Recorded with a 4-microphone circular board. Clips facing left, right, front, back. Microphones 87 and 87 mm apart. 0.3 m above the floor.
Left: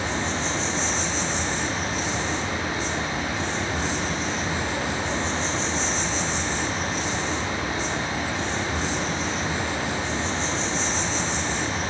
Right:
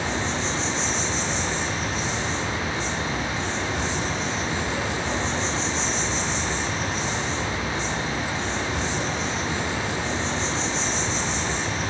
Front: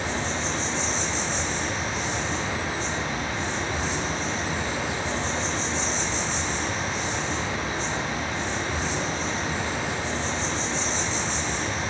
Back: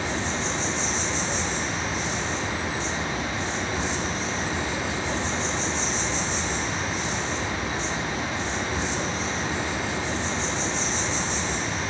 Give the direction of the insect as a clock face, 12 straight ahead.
10 o'clock.